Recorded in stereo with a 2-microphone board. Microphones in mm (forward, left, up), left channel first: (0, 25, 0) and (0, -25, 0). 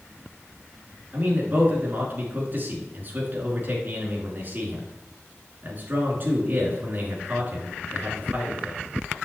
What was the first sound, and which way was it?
A man speaking, 40° right (ahead or behind).